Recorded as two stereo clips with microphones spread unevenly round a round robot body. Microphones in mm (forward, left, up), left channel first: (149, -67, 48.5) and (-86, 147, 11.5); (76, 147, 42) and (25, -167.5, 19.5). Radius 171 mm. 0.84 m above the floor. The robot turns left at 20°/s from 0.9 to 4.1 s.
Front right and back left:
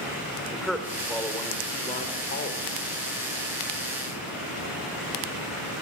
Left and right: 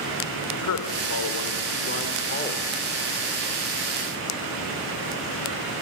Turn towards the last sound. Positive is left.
turn(degrees=-15)